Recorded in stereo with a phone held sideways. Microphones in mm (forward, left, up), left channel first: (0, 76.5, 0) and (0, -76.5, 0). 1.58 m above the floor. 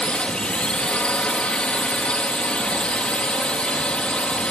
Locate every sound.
0.0 s a drone: 5° left (ahead or behind)